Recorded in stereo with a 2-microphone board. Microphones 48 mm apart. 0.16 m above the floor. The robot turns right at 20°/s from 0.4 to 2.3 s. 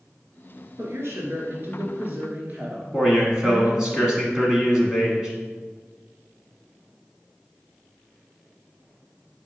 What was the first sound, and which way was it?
A woman speaking, 65° right.